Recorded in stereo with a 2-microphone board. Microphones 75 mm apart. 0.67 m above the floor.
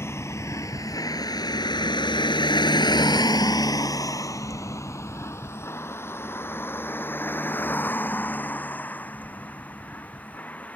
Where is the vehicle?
35° left (ahead or behind); by 10.8 s 20° left (ahead or behind).